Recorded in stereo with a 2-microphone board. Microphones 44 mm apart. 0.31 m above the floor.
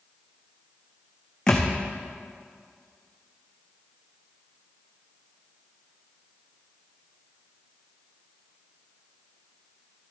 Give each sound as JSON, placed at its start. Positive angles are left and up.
{"t": 1.5, "sound": "a thud", "side_deg": 15, "distance_m": 1.5}